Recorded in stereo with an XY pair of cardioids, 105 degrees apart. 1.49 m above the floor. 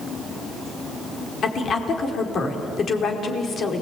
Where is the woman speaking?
55° left, 4.5 m.